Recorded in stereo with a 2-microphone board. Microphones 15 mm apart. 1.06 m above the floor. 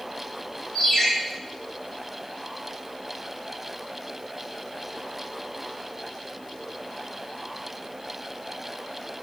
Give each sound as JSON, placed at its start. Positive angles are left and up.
{"t": 0.8, "sound": "a ringtone", "side_deg": 55, "distance_m": 1.7}